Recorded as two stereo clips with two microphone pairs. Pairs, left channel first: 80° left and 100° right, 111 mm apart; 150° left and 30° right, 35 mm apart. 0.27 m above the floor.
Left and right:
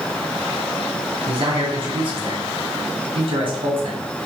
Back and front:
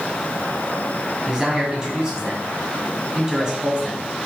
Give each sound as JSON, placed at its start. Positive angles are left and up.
{"t": 1.3, "sound": "a man speaking", "azimuth_deg": -95, "distance_m": 2.0}